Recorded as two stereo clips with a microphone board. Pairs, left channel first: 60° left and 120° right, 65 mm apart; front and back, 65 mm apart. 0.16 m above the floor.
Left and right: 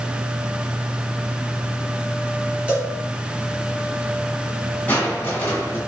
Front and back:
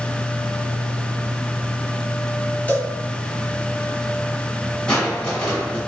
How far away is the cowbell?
About 1.6 m.